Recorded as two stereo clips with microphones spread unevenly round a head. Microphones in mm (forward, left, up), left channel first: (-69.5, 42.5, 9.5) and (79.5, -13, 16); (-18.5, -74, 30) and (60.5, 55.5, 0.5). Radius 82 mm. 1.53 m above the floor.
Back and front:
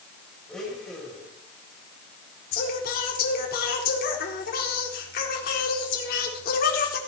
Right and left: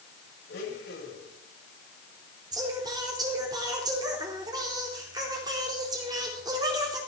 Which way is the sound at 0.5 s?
115° right.